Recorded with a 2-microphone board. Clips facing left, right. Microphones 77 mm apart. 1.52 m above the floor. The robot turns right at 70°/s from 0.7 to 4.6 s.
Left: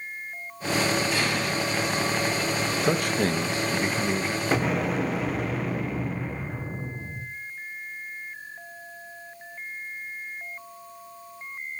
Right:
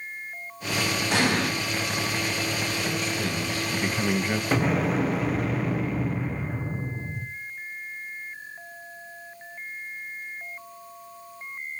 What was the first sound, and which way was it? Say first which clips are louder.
An explosion: right 3 dB; 65° right (ahead or behind).